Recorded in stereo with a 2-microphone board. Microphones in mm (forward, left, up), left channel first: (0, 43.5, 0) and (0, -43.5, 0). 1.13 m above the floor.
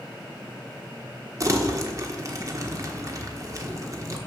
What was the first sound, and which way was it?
Crumpling, 40° right (ahead or behind).